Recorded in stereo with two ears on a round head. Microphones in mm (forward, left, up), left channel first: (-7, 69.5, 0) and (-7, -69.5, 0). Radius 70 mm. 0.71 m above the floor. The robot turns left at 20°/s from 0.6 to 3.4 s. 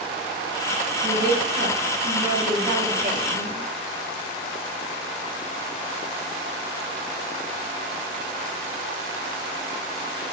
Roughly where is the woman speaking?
Right.